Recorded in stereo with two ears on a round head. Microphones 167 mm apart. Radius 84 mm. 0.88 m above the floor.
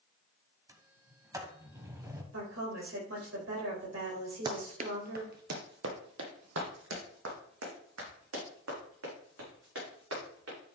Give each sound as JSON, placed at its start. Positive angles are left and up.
{"t": 0.7, "sound": "a sliding door", "side_deg": -15, "distance_m": 1.1}
{"t": 2.3, "sound": "a woman speaking", "side_deg": -80, "distance_m": 3.5}
{"t": 4.5, "sound": "running footsteps", "side_deg": -20, "distance_m": 1.0}